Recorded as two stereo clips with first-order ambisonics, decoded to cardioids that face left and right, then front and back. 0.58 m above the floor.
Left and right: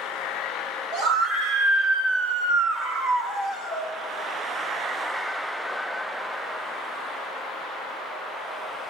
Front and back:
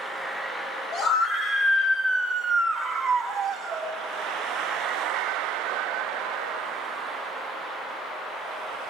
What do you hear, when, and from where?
0.9 s a scream: 50° right, 4 m; by 3.9 s 135° right, 2.5 m